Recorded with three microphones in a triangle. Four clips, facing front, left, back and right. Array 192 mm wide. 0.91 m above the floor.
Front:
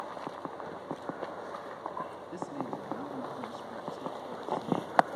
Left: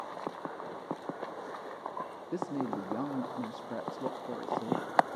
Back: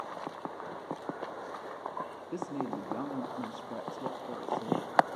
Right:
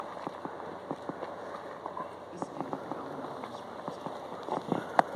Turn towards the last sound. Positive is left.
turn(degrees=115)